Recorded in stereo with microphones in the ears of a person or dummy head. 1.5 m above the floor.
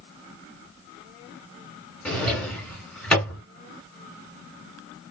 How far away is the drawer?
About 1.7 m.